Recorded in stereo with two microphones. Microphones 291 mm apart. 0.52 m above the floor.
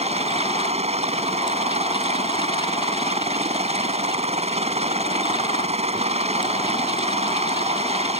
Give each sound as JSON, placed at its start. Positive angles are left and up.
{"t": 0.0, "sound": "a helicopter", "side_deg": -20}